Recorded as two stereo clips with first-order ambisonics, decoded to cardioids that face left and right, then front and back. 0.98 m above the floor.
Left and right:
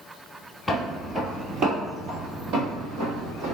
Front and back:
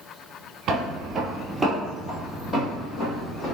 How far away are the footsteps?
About 1.2 m.